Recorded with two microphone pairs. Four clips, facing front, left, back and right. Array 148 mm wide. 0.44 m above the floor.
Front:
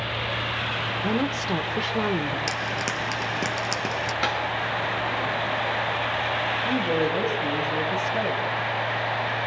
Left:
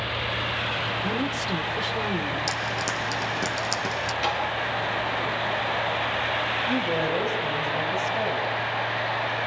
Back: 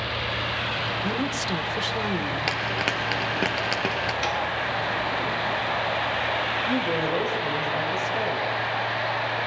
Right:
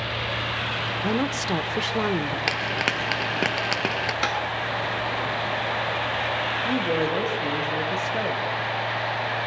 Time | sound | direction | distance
1.0 | a woman speaking | 65° right | 1.3 m
2.5 | frying | 110° right | 1.5 m
4.2 | tapping | 50° right | 4 m
6.7 | a woman speaking | 70° right | 8.5 m